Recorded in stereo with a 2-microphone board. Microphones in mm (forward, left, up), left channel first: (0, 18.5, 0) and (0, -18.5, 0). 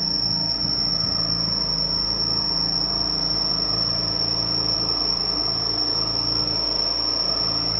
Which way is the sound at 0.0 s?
Centre (ahead or behind).